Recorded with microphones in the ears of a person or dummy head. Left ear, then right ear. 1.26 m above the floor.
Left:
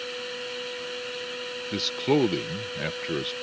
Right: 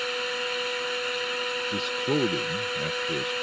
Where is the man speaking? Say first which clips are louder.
Left 6 dB; 25° left (ahead or behind).